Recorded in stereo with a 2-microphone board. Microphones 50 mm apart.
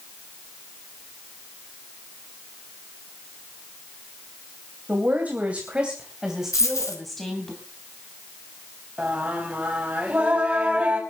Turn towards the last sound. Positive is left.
turn(degrees=-25)  # may be behind; listen again after turning